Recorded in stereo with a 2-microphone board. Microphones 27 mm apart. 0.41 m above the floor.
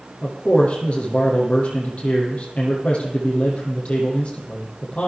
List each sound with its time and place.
0.2 s a man speaking: 50° left (ahead or behind), 7.5 m